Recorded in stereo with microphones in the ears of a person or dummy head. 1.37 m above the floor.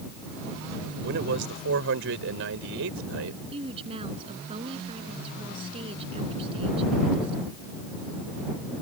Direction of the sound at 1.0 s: 60° right (ahead or behind).